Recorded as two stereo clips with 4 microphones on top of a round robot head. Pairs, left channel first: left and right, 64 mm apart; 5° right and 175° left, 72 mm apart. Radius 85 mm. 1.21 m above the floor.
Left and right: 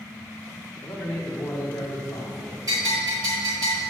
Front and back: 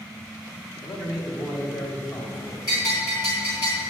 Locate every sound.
0.8 s a man speaking: 15° left, 1.7 m; by 2.6 s 40° left, 2.5 m
2.7 s a bell: 45° right, 3 m